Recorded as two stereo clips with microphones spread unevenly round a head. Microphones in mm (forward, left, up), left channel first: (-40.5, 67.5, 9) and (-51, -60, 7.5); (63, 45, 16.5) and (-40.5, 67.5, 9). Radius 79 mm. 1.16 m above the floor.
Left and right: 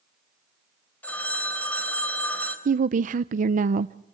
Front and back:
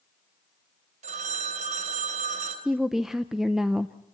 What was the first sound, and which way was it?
A phone ringing, 165° left.